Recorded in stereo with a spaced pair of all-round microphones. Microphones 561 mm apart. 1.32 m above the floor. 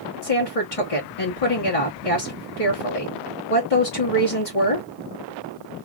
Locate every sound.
0.2 s a woman speaking: 70° left (ahead or behind), 1.5 m